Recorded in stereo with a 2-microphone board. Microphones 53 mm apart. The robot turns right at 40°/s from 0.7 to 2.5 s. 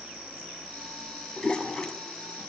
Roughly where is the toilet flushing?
Left.